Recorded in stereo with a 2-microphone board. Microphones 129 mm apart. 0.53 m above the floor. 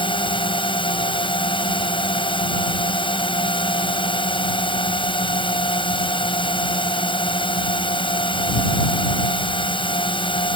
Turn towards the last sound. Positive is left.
turn(degrees=40)  # may be behind; listen again after turning